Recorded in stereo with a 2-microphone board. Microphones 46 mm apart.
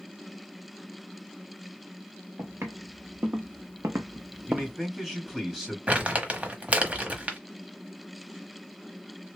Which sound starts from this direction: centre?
A man speaking, at 4.5 s.